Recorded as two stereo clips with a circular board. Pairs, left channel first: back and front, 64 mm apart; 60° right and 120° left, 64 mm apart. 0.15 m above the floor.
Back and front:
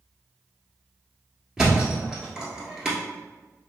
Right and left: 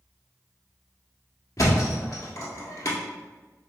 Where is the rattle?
No rattle in this recording.